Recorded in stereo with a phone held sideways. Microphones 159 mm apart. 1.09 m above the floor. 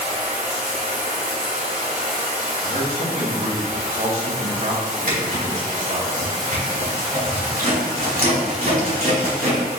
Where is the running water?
55° right (ahead or behind), 1.0 m.